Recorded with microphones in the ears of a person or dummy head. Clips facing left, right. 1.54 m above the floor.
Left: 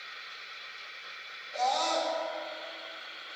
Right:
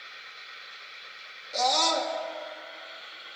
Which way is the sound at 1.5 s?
55° right (ahead or behind).